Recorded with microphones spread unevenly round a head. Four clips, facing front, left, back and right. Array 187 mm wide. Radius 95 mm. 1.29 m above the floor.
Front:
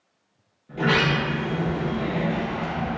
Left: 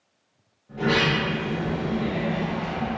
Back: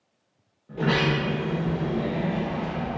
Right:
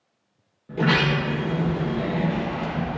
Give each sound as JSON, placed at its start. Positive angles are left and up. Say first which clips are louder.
{"t": 0.7, "sound": "a sliding door", "louder": "right 1 dB, front 2 dB", "azimuth_deg": -85, "distance_m": 0.5}